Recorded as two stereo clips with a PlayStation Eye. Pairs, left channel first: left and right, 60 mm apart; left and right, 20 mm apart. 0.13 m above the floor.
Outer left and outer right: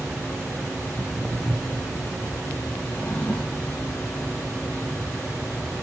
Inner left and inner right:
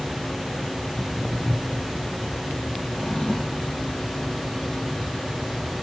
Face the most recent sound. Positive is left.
turn(degrees=30)  # may be behind; listen again after turning